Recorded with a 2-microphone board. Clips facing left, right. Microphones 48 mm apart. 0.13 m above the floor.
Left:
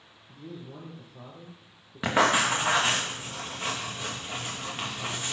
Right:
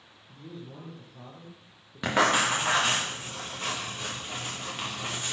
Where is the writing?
10° left (ahead or behind), 1.9 m.